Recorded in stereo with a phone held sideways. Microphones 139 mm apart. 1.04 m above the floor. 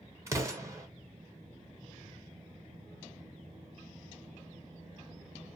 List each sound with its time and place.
0.3 s an explosion: 20° right (ahead or behind), 0.6 m